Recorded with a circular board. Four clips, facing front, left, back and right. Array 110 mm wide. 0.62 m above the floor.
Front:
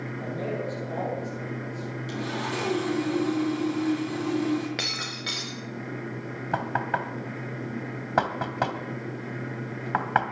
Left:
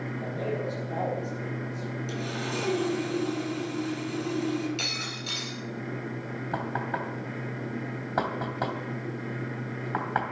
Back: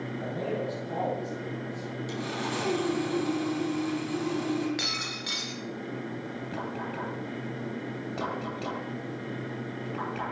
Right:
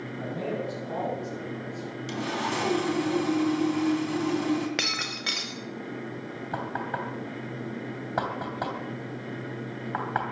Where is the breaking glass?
75° right, 2 m.